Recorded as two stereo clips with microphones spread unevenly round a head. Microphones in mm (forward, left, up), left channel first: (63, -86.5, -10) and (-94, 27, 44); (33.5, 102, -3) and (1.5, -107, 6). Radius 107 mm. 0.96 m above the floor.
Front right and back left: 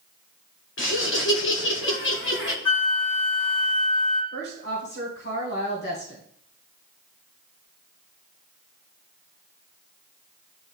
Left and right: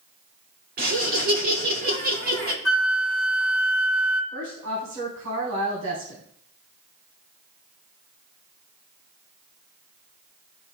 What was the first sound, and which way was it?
Laughter, 50° right.